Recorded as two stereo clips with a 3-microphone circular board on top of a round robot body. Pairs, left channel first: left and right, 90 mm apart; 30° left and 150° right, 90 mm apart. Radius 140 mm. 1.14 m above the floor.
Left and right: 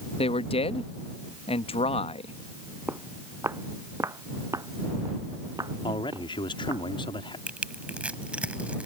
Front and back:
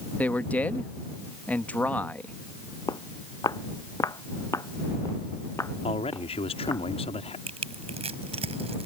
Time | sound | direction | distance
0.2 | a man speaking | 105° left | ?
2.9 | footsteps | 20° right | ?
5.8 | a man speaking | 50° left | ?
7.5 | crushing | 170° right | ?